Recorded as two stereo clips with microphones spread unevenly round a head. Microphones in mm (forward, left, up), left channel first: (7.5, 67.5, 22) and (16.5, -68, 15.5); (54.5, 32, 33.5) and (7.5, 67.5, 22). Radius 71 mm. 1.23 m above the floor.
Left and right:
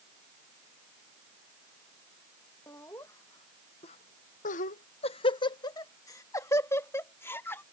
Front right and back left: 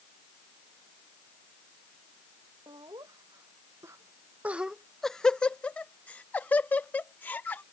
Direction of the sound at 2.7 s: 170° left.